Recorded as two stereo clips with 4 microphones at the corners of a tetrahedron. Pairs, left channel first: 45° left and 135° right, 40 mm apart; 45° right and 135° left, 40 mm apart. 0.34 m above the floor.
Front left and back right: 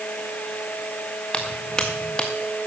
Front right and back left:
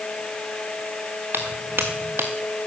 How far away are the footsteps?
About 1.6 m.